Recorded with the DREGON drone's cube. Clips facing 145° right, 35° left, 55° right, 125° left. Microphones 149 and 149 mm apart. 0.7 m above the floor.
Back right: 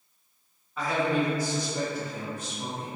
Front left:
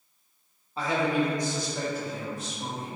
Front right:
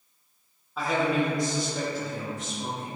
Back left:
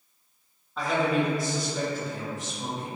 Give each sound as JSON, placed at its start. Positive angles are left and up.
{"t": 0.8, "sound": "a man speaking", "azimuth_deg": 25, "distance_m": 0.8}